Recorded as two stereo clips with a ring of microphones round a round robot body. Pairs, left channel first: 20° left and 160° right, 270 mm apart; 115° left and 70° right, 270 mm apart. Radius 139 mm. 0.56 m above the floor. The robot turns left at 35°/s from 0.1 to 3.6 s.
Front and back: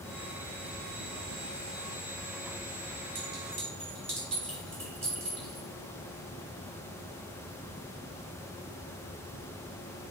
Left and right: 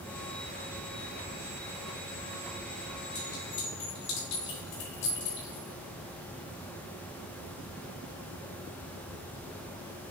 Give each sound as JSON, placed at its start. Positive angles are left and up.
{"t": 3.1, "sound": "a clink", "azimuth_deg": 150, "distance_m": 2.5}